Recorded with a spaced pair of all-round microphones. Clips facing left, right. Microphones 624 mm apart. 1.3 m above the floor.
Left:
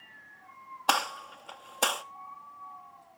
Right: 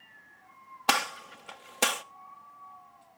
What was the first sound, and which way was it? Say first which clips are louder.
A gunshot: right 1 dB; 50° right (ahead or behind).